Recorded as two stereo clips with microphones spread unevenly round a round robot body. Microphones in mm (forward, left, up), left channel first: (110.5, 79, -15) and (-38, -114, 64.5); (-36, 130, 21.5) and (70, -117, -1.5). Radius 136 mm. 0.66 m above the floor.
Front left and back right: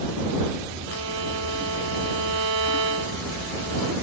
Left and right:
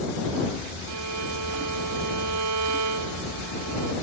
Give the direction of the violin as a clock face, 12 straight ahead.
3 o'clock.